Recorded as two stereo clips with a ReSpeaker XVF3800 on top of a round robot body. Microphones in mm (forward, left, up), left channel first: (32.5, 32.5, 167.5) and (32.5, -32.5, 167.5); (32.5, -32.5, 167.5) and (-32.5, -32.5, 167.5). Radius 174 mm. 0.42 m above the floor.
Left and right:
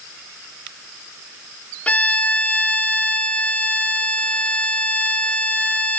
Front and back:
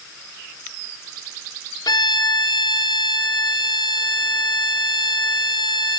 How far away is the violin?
About 1.9 m.